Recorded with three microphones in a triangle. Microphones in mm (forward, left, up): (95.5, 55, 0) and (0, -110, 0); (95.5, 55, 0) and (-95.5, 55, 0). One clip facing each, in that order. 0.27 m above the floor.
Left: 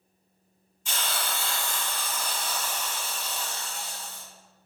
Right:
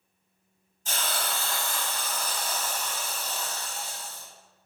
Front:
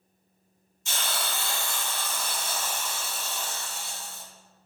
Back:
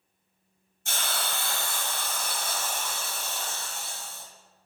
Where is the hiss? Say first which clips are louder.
Right 1 dB, even; 160° right, 1.5 m.